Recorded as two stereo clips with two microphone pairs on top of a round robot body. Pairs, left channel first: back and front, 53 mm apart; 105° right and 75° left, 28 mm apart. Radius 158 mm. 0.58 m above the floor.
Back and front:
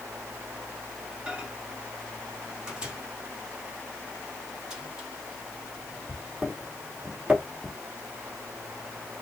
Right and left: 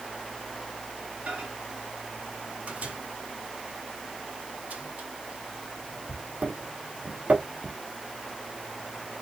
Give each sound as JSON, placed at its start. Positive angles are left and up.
{"t": 1.3, "sound": "a microwave", "azimuth_deg": 70, "distance_m": 2.0}